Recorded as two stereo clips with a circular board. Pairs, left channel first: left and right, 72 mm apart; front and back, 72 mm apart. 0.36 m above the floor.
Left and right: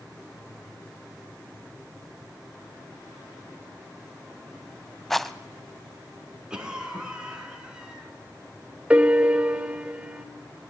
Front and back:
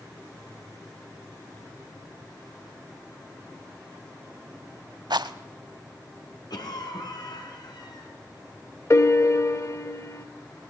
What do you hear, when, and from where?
5.1 s a rattle: straight behind, 0.7 m
6.5 s a cough: 10° right, 5 m
8.9 s a piano: 25° right, 1.0 m